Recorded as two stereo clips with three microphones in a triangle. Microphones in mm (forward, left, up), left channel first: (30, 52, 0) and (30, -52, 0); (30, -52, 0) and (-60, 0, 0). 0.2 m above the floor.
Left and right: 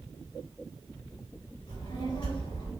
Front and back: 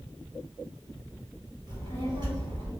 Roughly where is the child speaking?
Behind left.